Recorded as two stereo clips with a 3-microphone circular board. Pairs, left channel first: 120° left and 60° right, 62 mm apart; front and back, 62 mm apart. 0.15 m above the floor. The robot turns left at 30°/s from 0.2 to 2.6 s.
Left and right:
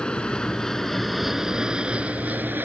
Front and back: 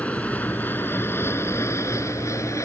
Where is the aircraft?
55° left; by 2.6 s 10° right.